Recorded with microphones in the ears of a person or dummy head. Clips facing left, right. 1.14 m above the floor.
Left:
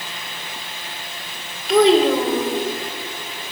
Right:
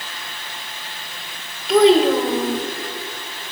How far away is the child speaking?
About 2.5 m.